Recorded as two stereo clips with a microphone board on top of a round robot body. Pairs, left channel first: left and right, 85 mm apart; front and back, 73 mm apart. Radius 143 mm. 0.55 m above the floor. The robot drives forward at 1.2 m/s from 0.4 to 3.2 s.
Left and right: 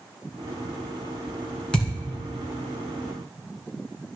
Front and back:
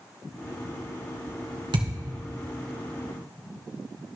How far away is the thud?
About 2 m.